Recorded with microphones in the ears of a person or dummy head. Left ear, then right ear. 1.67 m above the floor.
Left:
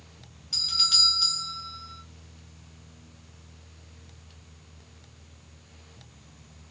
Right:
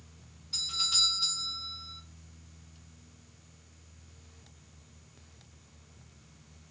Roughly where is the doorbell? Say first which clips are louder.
Left 7 dB; left.